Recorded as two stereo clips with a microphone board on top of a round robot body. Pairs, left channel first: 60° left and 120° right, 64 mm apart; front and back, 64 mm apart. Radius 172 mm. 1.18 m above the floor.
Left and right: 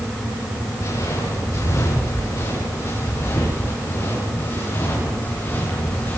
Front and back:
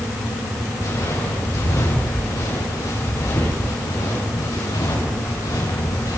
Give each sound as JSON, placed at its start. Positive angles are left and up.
{"t": 0.8, "sound": "footsteps", "azimuth_deg": 30, "distance_m": 9.5}